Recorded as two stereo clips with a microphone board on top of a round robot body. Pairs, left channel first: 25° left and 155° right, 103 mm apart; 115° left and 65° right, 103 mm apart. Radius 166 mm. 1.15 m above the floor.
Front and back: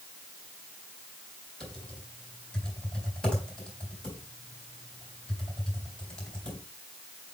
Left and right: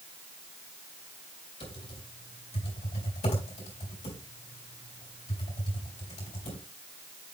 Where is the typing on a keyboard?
105° left, 3.5 m.